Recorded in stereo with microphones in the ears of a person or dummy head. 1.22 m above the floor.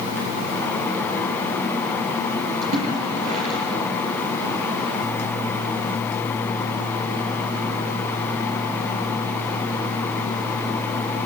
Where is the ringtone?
I don't hear a ringtone.